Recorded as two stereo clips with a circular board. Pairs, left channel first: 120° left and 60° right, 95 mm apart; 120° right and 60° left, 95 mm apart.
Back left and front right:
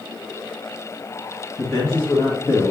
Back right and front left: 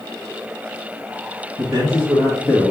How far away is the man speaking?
About 2.5 m.